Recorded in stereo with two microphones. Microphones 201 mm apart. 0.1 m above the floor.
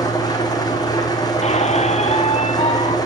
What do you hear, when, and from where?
0.0 s an engine running: 20° left (ahead or behind), 1.9 m
1.4 s a squeak: 35° left (ahead or behind), 0.6 m